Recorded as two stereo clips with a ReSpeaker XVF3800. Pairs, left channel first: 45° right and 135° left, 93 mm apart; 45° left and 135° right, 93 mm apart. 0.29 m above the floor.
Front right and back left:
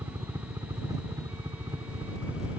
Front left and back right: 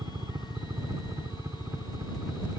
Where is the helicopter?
175° right; by 2.6 s 165° left.